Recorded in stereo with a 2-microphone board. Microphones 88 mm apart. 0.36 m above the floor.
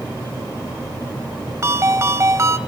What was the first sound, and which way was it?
A ringtone, 35° right (ahead or behind).